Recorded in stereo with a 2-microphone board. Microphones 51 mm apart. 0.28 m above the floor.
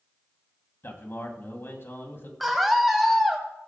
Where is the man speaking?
50° left (ahead or behind), 2.5 m.